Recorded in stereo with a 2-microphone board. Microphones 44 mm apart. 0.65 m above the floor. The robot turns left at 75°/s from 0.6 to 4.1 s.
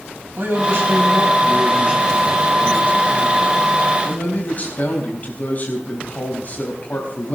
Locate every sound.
0.4 s a man speaking: 55° right, 4 m; by 7.4 s 40° left, 4 m